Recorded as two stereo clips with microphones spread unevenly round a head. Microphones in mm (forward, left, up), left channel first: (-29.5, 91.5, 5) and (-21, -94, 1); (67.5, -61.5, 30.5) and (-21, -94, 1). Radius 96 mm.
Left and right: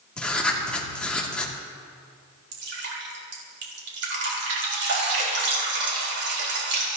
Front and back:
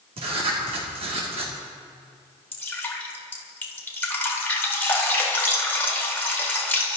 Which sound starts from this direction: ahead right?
Dripping, at 2.5 s.